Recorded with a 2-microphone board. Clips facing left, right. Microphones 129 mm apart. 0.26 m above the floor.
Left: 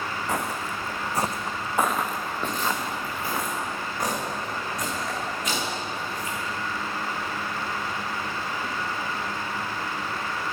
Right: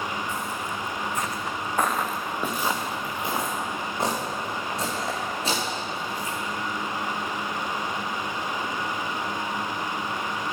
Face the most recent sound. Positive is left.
turn(degrees=-35)  # may be behind; listen again after turning